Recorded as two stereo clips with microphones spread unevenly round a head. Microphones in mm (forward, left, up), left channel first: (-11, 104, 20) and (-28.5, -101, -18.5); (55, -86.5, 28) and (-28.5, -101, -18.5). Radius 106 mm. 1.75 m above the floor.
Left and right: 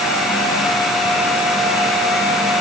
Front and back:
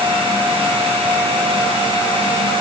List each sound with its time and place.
Only background noise.